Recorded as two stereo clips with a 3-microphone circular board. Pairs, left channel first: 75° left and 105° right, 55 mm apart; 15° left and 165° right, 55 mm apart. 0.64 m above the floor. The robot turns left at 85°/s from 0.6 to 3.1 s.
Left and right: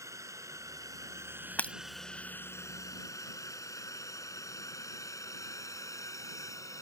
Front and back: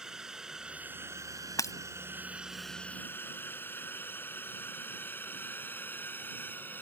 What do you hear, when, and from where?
0.0 s a drone: 85° right; by 6.8 s 70° left
1.6 s breaking glass: 15° left; by 1.7 s straight ahead